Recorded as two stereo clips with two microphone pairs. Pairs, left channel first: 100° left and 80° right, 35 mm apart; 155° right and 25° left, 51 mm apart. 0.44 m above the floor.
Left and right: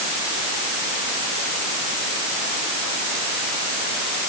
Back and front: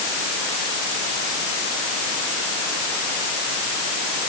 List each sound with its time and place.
Only background noise.